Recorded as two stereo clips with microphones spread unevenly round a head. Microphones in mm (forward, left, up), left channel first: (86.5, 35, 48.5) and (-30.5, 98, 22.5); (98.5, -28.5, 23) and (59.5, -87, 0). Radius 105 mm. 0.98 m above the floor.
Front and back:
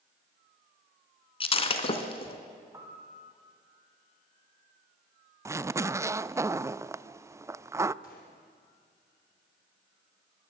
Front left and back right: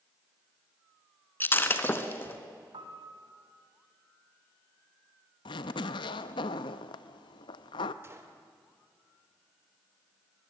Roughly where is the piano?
Behind right.